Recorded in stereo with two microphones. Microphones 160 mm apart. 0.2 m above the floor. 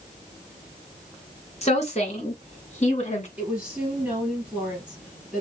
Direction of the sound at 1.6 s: 40° left (ahead or behind).